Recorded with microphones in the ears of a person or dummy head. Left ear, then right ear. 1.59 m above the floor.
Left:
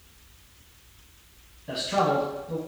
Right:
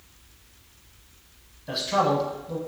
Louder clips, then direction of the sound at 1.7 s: Right 1 dB; 25° right (ahead or behind).